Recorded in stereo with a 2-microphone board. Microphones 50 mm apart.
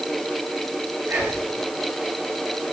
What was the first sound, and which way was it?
Whispering, 60° right (ahead or behind).